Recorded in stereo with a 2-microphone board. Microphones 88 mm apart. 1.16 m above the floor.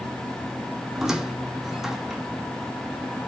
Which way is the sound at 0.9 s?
5° right (ahead or behind).